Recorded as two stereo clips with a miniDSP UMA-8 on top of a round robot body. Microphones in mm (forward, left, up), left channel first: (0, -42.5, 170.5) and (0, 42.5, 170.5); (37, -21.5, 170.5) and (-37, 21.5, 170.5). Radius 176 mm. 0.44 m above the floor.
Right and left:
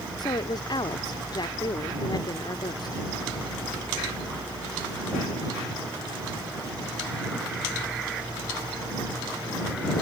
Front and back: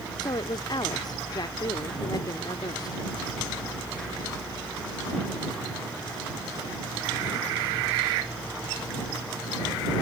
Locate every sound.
0.2 s a woman speaking: 60° right